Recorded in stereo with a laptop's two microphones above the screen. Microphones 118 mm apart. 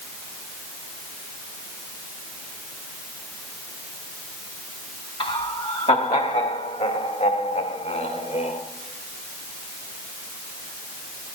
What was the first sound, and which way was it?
Laughter, 45° left (ahead or behind).